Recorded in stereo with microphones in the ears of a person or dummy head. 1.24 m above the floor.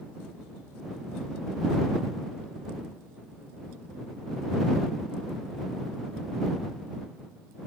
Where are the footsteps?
No footsteps in this recording.